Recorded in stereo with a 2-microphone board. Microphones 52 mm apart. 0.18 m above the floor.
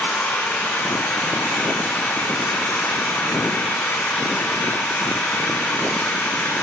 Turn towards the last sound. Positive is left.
turn(degrees=35)  # may be behind; listen again after turning